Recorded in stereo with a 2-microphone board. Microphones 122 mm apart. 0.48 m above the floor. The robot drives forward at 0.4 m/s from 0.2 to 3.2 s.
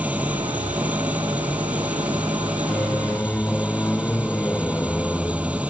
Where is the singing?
15° left (ahead or behind).